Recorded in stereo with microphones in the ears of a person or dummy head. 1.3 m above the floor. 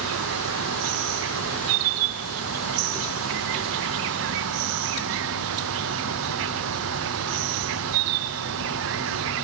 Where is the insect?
70° right (ahead or behind), 0.7 m.